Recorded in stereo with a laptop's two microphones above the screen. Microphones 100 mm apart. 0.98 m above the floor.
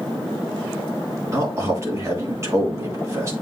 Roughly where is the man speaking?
Right.